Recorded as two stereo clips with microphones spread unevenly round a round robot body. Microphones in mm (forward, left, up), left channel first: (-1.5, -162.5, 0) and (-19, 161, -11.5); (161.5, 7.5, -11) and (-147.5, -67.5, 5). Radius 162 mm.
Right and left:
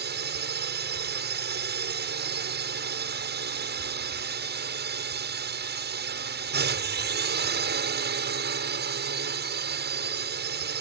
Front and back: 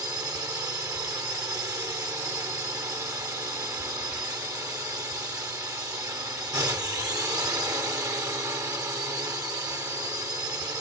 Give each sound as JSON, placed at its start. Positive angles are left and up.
{"t": 0.0, "sound": "a drone", "azimuth_deg": 115}